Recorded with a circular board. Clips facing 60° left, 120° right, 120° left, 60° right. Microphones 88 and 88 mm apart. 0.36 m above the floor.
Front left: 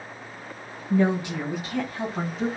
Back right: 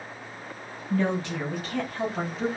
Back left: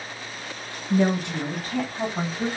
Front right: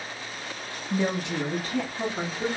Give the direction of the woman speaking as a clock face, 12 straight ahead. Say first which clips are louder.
Front left 4 dB, back left 5 dB; 8 o'clock.